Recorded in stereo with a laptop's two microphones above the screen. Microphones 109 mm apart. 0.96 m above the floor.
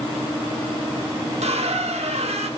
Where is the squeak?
75° right (ahead or behind), 1.0 m.